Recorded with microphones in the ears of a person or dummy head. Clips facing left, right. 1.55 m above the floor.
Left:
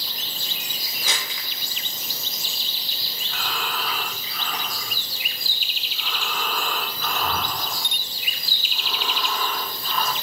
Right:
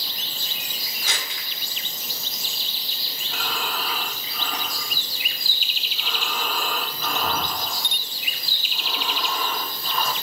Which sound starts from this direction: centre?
Breathing, at 3.2 s.